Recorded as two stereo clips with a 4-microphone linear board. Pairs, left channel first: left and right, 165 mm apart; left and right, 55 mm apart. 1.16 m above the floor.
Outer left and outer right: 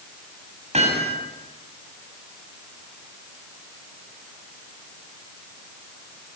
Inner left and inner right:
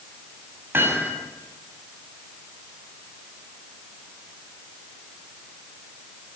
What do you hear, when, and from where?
0.7 s hammering: 45° right (ahead or behind), 7 m